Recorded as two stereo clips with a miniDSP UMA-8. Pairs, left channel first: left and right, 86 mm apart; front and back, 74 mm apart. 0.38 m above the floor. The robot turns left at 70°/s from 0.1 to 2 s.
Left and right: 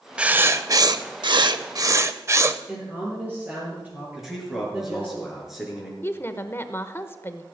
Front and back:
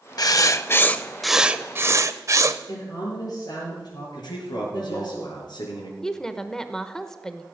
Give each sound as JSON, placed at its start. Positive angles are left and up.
{"t": 0.2, "sound": "writing", "azimuth_deg": -15, "distance_m": 0.6}
{"t": 2.7, "sound": "a woman speaking", "azimuth_deg": -15, "distance_m": 7.0}
{"t": 4.2, "sound": "a man speaking", "azimuth_deg": -5, "distance_m": 4.5}
{"t": 6.0, "sound": "a woman speaking", "azimuth_deg": 80, "distance_m": 0.8}